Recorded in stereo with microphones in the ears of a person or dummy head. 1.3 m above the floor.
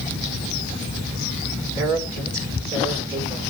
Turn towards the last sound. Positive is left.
turn(degrees=-15)  # may be behind; listen again after turning